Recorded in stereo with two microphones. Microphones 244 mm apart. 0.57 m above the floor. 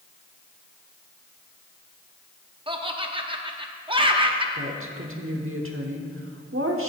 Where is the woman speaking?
55° right (ahead or behind), 1.2 m.